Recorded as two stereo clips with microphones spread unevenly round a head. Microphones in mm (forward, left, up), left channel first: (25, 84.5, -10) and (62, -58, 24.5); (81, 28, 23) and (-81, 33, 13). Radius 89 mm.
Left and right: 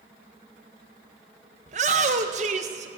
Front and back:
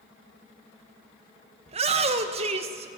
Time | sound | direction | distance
1.7 | a shout | 130° right | 1.3 m